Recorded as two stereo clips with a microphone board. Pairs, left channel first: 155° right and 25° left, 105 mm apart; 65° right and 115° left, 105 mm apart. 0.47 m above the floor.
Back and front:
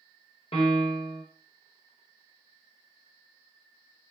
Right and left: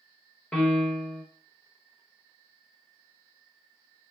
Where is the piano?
145° right, 0.8 m.